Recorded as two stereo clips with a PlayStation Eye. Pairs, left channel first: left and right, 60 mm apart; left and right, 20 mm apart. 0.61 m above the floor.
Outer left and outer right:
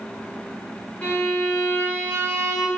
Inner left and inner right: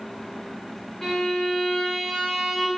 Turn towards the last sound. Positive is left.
turn(degrees=30)  # may be behind; listen again after turning